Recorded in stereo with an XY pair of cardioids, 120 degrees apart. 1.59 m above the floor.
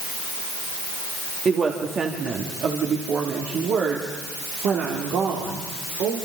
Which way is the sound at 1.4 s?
35° right.